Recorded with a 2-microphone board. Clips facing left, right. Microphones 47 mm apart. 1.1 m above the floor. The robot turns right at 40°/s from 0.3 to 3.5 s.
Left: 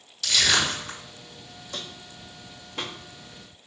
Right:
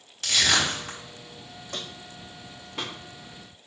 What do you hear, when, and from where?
0.2 s crushing: 45° right (ahead or behind), 4 m; by 1.0 s 70° right (ahead or behind), 4 m
1.7 s footsteps: 55° right (ahead or behind), 2.5 m; by 2.9 s 5° left (ahead or behind), 3 m